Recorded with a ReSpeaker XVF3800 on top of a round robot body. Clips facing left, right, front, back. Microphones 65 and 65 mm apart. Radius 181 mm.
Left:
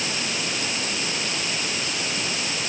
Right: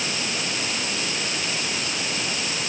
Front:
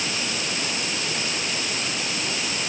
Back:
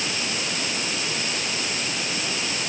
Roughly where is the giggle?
No giggle in this recording.